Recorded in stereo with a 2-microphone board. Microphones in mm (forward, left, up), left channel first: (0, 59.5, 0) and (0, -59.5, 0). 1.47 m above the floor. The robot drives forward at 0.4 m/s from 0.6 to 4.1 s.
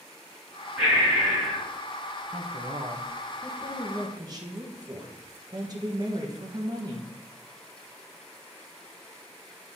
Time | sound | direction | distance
0.8 | breathing | 10° right (ahead or behind) | 3 m
2.3 | a woman speaking | 60° right (ahead or behind) | 0.8 m